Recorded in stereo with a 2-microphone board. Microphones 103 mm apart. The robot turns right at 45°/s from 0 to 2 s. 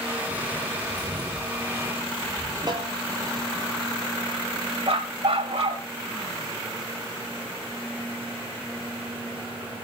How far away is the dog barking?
About 3 m.